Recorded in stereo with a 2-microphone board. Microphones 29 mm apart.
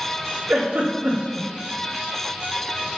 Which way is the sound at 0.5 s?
50° right (ahead or behind).